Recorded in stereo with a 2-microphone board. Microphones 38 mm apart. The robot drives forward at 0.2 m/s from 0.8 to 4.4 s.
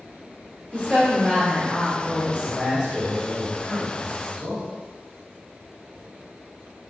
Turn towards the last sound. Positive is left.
turn(degrees=-5)  # may be behind; listen again after turning